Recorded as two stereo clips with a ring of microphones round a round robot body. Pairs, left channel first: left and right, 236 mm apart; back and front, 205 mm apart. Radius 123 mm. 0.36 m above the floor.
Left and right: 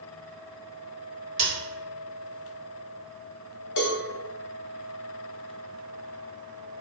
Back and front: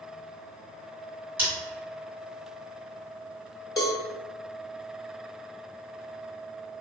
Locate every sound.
1.4 s scissors: 70° right, 1.7 m
3.8 s a cowbell: 105° left, 0.7 m